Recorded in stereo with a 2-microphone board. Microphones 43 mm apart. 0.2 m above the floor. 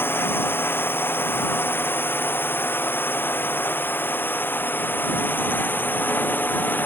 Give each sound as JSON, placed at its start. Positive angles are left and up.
{"t": 0.0, "sound": "a drone", "side_deg": 60}